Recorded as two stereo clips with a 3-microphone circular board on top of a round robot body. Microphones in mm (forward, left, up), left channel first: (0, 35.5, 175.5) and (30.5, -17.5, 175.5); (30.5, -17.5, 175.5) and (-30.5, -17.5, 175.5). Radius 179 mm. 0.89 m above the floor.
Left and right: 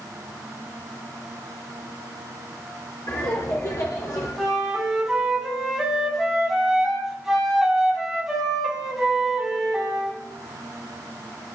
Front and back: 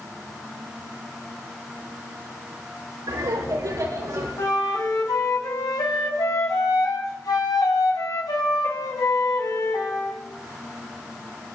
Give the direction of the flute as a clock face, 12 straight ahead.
11 o'clock.